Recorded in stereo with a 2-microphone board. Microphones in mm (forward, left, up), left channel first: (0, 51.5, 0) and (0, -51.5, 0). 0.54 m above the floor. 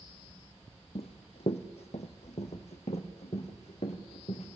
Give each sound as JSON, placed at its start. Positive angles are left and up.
{"t": 0.9, "sound": "running footsteps", "side_deg": 65, "distance_m": 1.1}